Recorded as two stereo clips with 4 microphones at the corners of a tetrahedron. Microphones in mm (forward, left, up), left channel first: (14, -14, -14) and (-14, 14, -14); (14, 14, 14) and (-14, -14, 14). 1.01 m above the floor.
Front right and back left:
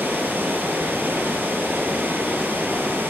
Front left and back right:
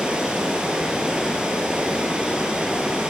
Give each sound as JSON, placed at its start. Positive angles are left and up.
{"t": 0.0, "sound": "running water", "azimuth_deg": 160, "distance_m": 2.5}